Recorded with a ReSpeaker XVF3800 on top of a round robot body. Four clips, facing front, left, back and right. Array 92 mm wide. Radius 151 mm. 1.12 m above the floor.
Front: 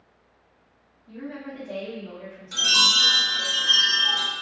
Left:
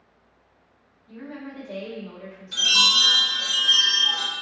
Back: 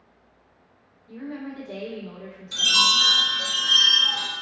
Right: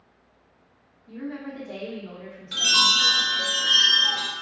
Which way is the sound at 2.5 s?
65° right.